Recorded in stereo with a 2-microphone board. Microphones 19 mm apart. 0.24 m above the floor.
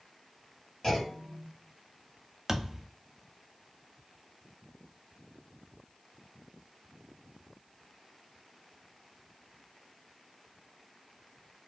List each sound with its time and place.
0.8 s a clunk: 15° left (ahead or behind), 1.9 m
2.5 s a thud: 25° right (ahead or behind), 0.5 m